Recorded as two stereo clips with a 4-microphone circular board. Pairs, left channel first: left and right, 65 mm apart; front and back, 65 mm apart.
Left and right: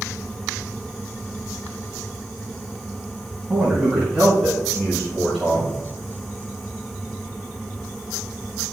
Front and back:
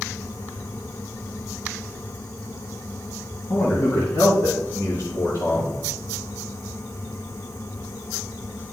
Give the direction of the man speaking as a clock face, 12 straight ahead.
1 o'clock.